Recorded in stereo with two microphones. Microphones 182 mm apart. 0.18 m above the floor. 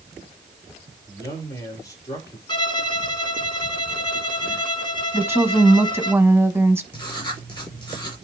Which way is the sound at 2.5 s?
25° left (ahead or behind).